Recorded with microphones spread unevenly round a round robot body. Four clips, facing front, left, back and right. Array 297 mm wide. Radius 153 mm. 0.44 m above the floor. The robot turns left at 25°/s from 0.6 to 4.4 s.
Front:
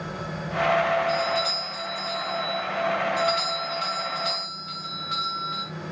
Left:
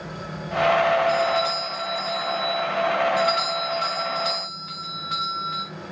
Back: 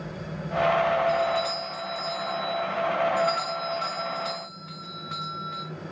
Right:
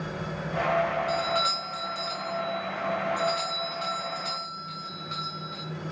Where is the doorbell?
110° right, 2 m; by 5.7 s 165° left, 2 m.